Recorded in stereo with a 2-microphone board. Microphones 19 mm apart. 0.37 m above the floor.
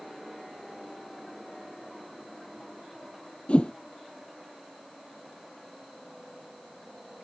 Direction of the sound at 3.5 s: 75° left (ahead or behind).